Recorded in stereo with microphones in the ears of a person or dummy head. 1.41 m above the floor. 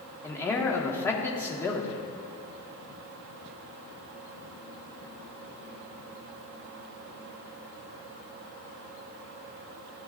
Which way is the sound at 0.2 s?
15° left (ahead or behind).